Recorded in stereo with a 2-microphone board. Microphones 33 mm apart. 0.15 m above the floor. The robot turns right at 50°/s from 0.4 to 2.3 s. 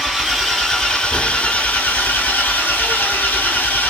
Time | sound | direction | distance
0.0 | an engine running | straight ahead | 1.1 m